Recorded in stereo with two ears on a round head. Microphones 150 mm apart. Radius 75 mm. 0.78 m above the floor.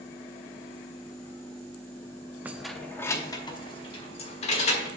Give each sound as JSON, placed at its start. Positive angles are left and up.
{"t": 2.5, "sound": "keys jangling", "side_deg": -10, "distance_m": 0.5}